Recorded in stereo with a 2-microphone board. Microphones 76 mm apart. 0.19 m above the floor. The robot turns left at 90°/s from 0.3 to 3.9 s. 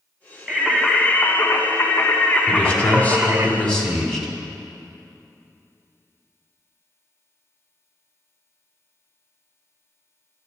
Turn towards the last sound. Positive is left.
turn(degrees=5)  # may be behind; listen again after turning